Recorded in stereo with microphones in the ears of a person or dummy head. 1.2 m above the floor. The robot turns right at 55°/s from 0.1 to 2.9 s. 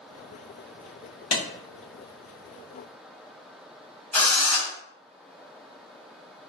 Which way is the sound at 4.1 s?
10° left (ahead or behind).